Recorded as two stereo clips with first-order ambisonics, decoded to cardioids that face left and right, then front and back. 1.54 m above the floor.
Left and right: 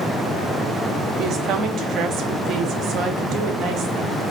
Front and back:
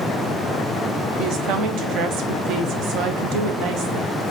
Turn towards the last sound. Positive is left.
turn(degrees=-140)